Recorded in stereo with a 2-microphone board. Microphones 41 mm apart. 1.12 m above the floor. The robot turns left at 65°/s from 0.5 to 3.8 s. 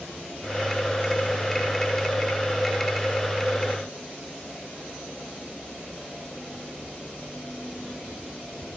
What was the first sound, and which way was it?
Only background noise.